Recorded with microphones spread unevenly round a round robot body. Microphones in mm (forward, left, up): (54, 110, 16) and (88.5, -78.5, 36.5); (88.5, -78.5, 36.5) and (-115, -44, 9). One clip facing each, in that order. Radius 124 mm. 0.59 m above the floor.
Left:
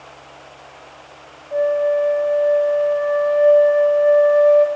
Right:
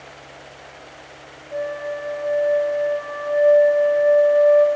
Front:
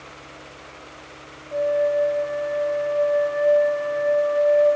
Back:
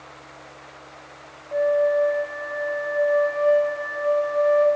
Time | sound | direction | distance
1.5 | a flute | 105° left | 0.8 m